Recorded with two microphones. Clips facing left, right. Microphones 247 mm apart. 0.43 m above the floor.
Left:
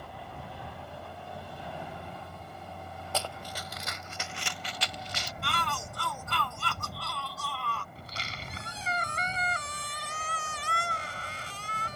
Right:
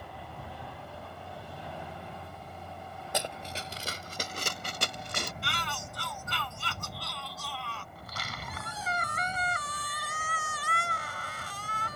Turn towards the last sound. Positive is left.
turn(degrees=30)  # may be behind; listen again after turning